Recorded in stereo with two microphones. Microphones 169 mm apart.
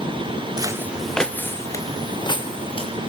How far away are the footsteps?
About 1.1 m.